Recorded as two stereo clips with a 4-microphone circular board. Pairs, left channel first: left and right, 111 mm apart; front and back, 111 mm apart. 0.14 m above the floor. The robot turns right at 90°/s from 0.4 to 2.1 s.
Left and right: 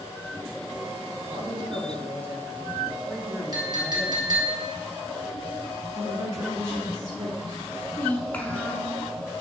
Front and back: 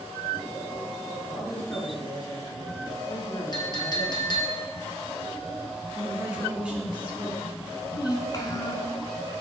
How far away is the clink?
About 1.8 m.